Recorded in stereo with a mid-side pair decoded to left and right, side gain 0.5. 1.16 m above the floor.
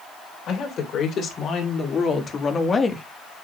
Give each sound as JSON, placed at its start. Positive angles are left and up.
{"t": 0.5, "sound": "a woman speaking", "azimuth_deg": 60, "distance_m": 4.0}